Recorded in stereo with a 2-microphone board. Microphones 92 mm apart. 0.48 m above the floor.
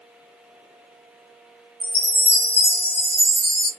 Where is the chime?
20° left (ahead or behind), 1.4 m.